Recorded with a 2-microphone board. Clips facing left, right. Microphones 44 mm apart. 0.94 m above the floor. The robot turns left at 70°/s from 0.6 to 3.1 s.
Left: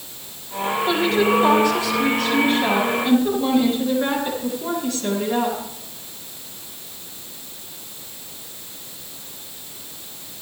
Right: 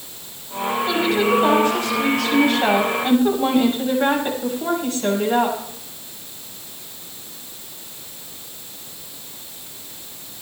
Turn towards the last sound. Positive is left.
turn(degrees=-140)